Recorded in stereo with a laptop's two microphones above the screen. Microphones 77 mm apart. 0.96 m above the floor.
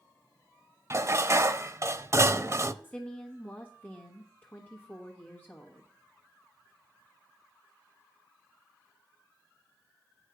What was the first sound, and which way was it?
Dishes clattering, 40° right (ahead or behind).